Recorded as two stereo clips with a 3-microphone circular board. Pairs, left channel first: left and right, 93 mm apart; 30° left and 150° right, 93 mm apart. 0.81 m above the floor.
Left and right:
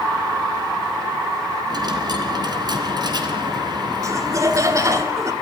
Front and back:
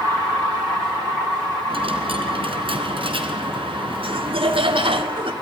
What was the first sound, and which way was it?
A dropped coin, 130° right.